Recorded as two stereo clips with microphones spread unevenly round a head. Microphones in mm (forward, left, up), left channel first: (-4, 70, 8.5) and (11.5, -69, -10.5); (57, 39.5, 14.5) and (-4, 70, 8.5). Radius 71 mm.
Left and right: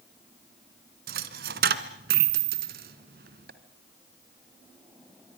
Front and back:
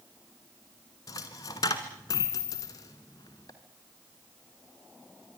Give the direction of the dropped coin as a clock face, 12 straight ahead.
3 o'clock.